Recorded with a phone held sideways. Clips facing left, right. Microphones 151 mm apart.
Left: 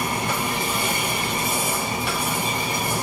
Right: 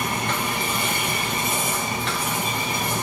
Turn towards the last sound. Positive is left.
turn(degrees=10)  # may be behind; listen again after turning